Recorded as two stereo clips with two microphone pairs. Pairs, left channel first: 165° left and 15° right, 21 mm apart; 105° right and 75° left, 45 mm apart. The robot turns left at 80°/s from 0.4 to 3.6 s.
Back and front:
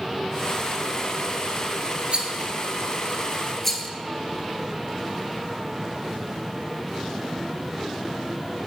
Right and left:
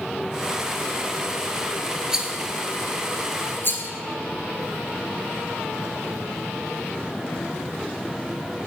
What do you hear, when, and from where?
2.1 s a rattle: 5° left, 0.7 m; by 3.9 s 115° right, 0.7 m